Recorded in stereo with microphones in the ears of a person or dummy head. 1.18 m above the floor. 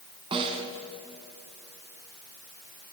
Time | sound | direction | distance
0.3 | a snare drum | 30° right (ahead or behind) | 2.5 m